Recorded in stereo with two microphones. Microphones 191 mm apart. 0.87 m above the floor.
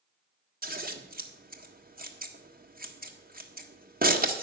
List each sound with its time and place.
0.6 s scissors: 50° right (ahead or behind), 1.6 m